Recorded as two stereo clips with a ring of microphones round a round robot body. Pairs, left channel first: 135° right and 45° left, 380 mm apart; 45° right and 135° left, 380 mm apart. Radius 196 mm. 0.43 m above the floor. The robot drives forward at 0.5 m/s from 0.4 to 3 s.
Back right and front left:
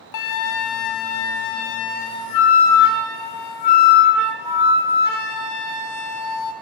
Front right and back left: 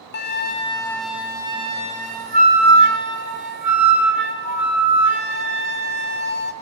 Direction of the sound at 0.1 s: 105° right.